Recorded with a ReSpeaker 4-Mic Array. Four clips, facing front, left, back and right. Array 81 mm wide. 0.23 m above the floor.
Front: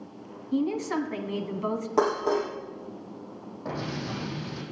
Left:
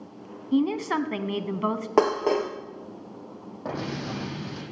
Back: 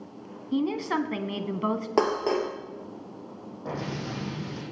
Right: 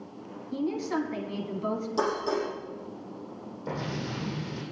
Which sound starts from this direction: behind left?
A woman speaking, at 0.5 s.